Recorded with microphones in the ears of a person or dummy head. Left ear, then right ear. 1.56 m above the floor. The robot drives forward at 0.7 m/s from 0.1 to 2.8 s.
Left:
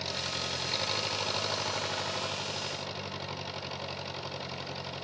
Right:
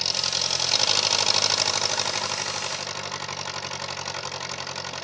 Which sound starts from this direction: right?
An engine running, at 0.0 s.